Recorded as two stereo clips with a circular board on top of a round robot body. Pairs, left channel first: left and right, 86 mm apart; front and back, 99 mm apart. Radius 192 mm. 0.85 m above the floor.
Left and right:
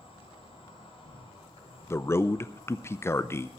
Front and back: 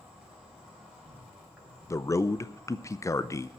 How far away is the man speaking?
About 0.7 m.